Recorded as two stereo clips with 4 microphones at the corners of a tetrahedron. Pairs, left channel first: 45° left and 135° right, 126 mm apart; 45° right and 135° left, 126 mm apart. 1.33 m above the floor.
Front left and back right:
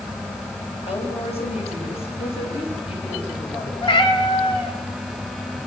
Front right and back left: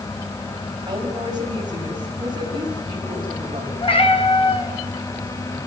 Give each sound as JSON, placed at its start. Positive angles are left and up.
{"t": 0.9, "sound": "a woman speaking", "azimuth_deg": 80, "distance_m": 6.5}
{"t": 3.8, "sound": "a cat meowing", "azimuth_deg": -5, "distance_m": 3.5}